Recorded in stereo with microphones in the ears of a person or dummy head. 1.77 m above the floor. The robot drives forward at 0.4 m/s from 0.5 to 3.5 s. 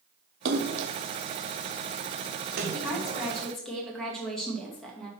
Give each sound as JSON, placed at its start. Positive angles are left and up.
{"t": 0.5, "sound": "a splash", "side_deg": -60, "distance_m": 0.8}
{"t": 2.7, "sound": "a woman speaking", "side_deg": 5, "distance_m": 2.5}